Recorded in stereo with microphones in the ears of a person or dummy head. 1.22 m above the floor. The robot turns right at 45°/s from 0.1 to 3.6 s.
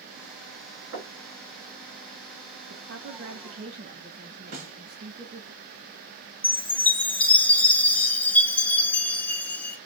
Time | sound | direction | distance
0.9 | knocking | 70° right (ahead or behind) | 1.2 m
2.7 | a woman speaking | 80° right | 0.7 m
4.5 | a snare drum | 40° right (ahead or behind) | 0.9 m
6.4 | a chime | 5° left (ahead or behind) | 1.0 m